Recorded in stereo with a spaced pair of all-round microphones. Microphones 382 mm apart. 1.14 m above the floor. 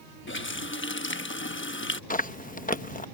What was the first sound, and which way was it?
A running tap, 30° left (ahead or behind).